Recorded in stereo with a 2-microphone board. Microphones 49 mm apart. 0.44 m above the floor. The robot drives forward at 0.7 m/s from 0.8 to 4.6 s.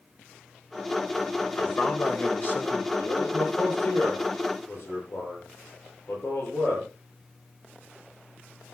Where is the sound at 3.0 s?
50° left (ahead or behind), 10 m; by 6.9 s 55° left (ahead or behind), 9 m.